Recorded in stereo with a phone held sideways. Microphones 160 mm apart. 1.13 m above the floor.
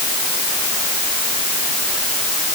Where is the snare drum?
No snare drum in this recording.